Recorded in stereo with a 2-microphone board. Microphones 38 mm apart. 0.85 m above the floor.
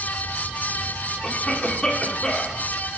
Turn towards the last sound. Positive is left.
turn(degrees=25)  # may be behind; listen again after turning